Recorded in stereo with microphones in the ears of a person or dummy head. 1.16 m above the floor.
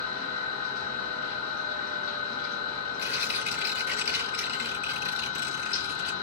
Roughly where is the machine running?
Left.